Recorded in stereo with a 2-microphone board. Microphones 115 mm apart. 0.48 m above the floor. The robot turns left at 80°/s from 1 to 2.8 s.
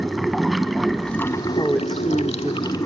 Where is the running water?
Straight behind, 0.8 m; by 2.9 s 35° left, 0.8 m.